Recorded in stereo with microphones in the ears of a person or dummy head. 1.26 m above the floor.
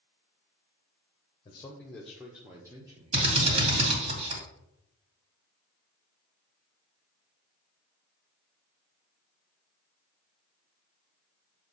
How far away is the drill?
About 2.5 m.